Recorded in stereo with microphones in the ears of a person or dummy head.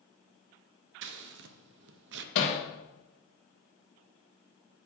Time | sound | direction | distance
1.0 | scissors | 65° right (ahead or behind) | 0.6 m
2.4 | hammering | 65° left (ahead or behind) | 1.3 m